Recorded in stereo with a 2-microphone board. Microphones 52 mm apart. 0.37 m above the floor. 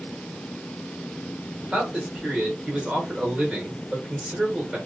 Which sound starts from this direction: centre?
A man speaking, at 1.7 s.